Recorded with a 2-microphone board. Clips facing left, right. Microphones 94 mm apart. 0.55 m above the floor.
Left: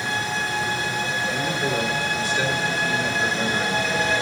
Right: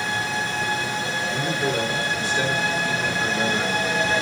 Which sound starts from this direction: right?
A man speaking, at 1.3 s.